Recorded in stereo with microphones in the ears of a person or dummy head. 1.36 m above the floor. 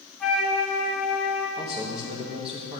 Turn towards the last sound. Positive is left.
turn(degrees=-30)  # may be behind; listen again after turning